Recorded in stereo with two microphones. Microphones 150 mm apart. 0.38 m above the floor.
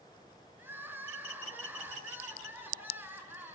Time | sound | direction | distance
0.6 | crying | 15° right (ahead or behind) | 5 m